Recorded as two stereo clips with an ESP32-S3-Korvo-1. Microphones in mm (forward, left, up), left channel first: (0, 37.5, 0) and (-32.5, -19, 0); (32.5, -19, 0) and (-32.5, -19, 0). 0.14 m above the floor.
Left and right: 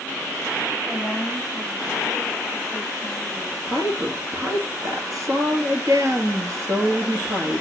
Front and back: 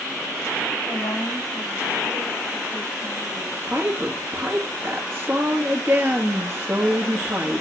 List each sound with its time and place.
0.9 s a woman speaking: 25° right, 5.5 m; by 3.6 s 35° right, 7.5 m
3.7 s a woman speaking: 125° right, 2.5 m